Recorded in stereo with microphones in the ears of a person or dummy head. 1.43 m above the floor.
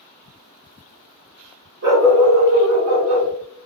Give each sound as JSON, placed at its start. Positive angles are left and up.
{"t": 1.8, "sound": "a dog barking", "side_deg": -50, "distance_m": 1.6}